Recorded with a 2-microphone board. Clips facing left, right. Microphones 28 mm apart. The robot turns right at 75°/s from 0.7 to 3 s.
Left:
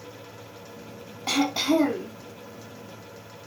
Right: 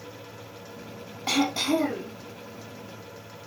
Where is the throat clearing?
5° right, 2 m; by 2.1 s 60° left, 2 m.